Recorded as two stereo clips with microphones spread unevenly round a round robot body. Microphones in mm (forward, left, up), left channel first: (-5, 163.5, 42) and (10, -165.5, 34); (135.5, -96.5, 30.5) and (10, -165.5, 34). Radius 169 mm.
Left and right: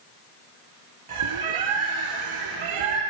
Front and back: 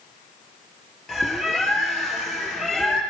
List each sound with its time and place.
1.1 s a bird: 60° right, 3.5 m